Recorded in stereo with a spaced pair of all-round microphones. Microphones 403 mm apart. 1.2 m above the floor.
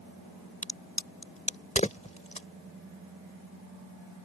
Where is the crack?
15° left (ahead or behind).